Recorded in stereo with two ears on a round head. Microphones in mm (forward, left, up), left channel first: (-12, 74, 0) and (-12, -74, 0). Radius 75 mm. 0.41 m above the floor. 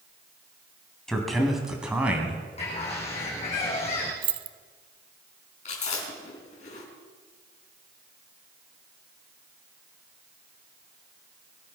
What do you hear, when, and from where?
1.1 s a man speaking: 5° left (ahead or behind), 3 m; by 2.5 s 10° right (ahead or behind), 3.5 m
2.6 s a bird: 40° left (ahead or behind), 6 m
4.2 s keys jangling: 30° right (ahead or behind), 0.7 m
5.7 s chewing: 50° left (ahead or behind), 5 m